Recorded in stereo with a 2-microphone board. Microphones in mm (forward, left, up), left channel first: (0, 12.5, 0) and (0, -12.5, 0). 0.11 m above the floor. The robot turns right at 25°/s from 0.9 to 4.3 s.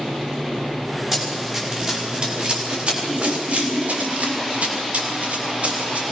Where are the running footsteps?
20° right (ahead or behind), 9.5 m; by 6.0 s 60° right (ahead or behind), 7.5 m.